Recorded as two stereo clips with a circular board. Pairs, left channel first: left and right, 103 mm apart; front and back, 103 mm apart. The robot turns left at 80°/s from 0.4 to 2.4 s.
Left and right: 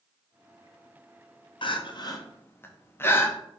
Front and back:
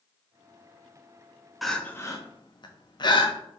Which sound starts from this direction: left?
Crying, at 1.6 s.